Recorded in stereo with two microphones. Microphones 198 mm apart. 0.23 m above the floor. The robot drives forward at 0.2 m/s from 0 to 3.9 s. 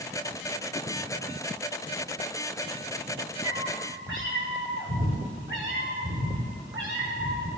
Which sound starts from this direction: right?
A cat meowing, at 3.4 s.